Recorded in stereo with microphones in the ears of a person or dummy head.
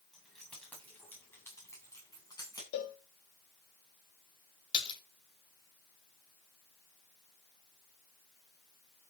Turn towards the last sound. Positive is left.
turn(degrees=30)  # may be behind; listen again after turning